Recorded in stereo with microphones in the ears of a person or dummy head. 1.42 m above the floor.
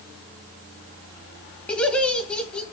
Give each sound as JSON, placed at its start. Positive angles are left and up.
{"t": 1.7, "sound": "laughter", "side_deg": 5, "distance_m": 1.3}